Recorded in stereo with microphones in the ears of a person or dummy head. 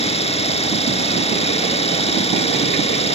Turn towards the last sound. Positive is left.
turn(degrees=25)  # may be behind; listen again after turning